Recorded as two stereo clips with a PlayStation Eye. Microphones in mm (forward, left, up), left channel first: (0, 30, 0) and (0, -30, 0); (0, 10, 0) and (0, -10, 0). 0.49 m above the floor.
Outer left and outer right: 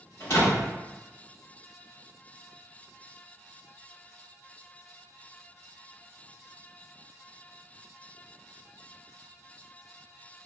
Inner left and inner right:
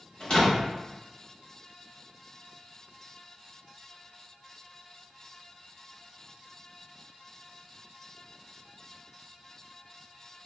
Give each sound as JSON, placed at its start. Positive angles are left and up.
{"t": 0.2, "sound": "a door slam", "side_deg": 55, "distance_m": 1.5}